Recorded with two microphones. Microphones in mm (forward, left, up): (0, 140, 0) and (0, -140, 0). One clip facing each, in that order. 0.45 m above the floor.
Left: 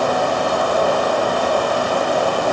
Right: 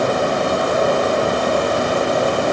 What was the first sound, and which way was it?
Only background noise.